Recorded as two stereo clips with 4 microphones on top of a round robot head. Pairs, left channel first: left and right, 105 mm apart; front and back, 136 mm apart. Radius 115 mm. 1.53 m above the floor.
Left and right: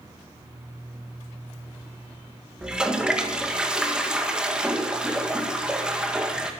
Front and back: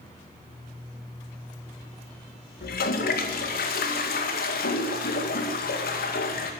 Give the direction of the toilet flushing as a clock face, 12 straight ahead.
12 o'clock.